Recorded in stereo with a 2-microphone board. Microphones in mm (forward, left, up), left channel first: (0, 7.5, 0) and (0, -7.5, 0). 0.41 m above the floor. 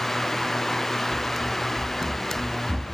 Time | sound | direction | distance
1.1 | running footsteps | 60° left (ahead or behind) | 3 m